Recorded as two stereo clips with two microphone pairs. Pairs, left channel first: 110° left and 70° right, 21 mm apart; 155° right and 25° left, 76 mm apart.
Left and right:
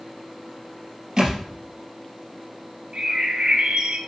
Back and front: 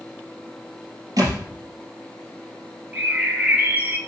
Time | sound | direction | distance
1.2 | a thud | 10° right | 4 m
2.9 | a bird | 40° right | 2 m